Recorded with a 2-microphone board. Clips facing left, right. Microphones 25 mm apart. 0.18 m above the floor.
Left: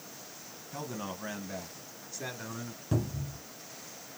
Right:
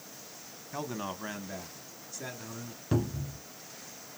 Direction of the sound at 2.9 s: 25° right (ahead or behind).